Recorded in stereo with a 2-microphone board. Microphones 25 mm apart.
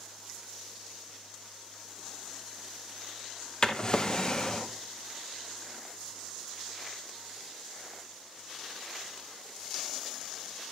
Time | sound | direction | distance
3.6 | a drawer | 30° left (ahead or behind) | 0.7 m